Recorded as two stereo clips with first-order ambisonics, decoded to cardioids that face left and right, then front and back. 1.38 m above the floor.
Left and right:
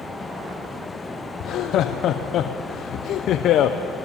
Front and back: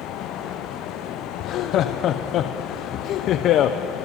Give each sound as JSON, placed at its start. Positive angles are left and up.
{"t": 1.4, "sound": "laughter", "azimuth_deg": 45, "distance_m": 0.7}